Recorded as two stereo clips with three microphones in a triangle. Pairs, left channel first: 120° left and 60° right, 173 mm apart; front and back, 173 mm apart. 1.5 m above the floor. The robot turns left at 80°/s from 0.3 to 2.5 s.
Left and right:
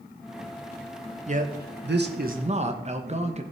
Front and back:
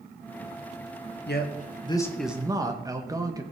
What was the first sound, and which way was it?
A man speaking, 10° right.